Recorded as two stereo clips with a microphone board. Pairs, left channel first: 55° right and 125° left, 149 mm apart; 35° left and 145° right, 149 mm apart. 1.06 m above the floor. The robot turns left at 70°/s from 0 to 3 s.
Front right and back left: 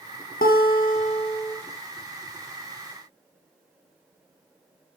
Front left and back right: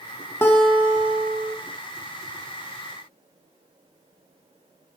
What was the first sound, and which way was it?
A guitar, 40° right.